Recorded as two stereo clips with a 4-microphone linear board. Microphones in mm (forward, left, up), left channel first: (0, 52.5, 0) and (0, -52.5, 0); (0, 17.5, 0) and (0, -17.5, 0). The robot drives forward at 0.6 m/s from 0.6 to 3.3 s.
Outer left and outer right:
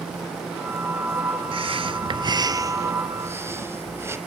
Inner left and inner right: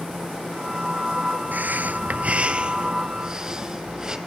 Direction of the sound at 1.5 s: 55° right (ahead or behind).